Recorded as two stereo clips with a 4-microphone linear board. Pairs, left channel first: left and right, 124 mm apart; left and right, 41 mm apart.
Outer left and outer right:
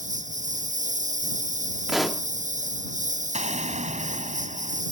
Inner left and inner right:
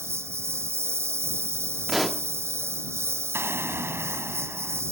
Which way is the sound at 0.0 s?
90° right.